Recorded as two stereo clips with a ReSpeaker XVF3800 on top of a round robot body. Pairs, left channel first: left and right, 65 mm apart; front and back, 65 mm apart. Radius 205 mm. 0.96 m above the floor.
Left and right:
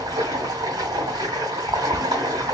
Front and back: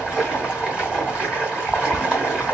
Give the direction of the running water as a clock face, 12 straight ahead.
3 o'clock.